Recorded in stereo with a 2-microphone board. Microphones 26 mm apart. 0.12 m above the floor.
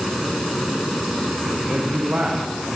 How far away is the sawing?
No sawing in this recording.